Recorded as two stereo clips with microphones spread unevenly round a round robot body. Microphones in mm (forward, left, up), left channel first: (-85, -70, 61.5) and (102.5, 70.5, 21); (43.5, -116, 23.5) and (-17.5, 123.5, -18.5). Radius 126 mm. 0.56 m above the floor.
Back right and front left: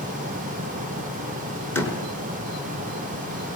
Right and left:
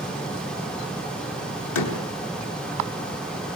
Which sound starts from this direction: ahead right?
A door slam, at 1.8 s.